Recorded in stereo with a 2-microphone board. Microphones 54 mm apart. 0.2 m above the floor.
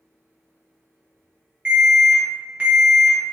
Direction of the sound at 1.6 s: 20° right (ahead or behind).